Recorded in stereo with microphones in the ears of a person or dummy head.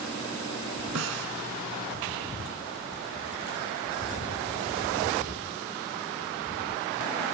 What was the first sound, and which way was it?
A snare drum, 65° right (ahead or behind).